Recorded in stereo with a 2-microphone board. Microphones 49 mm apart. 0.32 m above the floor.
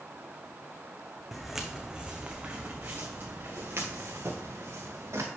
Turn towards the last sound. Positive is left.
turn(degrees=-70)  # may be behind; listen again after turning